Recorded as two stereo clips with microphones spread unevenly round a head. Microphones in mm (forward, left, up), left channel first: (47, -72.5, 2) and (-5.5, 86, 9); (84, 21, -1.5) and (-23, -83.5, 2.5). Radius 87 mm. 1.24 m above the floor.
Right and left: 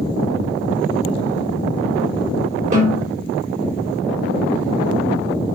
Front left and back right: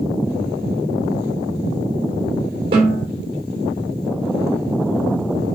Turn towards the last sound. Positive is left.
turn(degrees=160)